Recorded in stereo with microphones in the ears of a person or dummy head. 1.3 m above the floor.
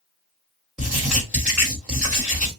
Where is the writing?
5° right (ahead or behind), 1.8 m.